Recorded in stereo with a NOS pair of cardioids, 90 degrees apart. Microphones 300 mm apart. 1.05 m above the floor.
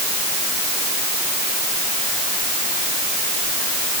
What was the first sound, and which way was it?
Only background noise.